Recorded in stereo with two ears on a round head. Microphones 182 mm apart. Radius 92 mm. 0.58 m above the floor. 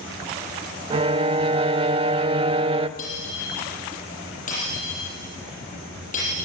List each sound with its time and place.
0.9 s a violin: 25° right (ahead or behind), 0.6 m
3.0 s breaking glass: 40° left (ahead or behind), 7 m